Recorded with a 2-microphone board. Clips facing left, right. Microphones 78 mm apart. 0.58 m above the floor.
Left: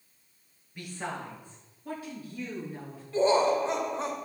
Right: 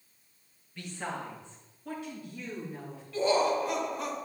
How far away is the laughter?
About 2.5 m.